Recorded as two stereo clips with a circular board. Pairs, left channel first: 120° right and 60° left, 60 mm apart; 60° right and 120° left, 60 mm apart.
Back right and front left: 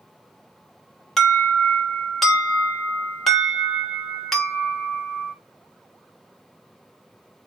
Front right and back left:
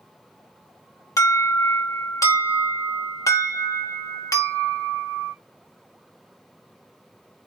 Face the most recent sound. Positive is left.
turn(degrees=-35)